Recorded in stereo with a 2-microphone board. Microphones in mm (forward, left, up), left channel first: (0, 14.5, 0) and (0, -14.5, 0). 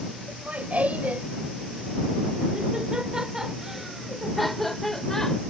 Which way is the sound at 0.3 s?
60° right (ahead or behind).